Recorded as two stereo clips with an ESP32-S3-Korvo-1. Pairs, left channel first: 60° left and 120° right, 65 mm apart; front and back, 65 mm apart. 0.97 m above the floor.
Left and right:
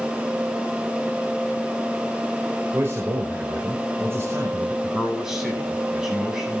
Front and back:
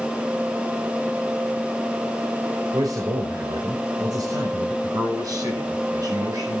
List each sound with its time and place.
2.7 s a man speaking: 170° right, 4.5 m
4.8 s a man speaking: 160° left, 9 m